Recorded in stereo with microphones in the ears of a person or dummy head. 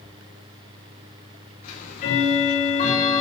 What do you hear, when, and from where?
1.6 s ticking: 45° left (ahead or behind), 2.5 m